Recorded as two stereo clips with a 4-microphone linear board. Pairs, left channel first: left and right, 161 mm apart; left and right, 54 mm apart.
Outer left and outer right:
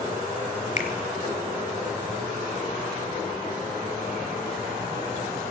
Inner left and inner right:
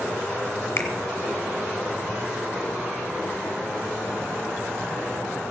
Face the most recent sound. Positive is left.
turn(degrees=50)  # may be behind; listen again after turning